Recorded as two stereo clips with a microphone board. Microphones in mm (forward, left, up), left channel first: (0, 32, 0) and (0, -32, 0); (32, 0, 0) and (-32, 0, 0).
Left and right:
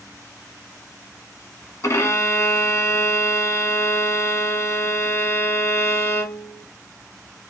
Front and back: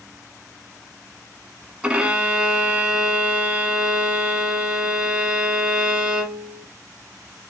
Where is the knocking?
I don't hear knocking.